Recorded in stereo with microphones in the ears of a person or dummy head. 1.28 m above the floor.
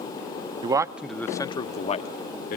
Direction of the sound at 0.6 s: 25° right (ahead or behind).